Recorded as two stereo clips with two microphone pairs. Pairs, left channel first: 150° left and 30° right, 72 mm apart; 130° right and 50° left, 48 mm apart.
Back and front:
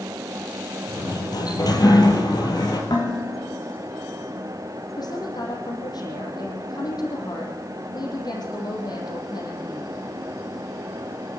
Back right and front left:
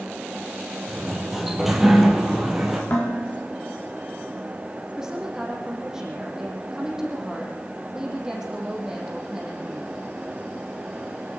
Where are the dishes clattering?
Straight behind, 8 m.